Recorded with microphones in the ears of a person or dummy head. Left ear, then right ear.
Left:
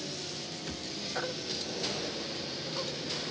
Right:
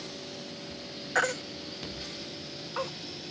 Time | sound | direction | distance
1.1 | a baby crying | 65° right (ahead or behind) | ?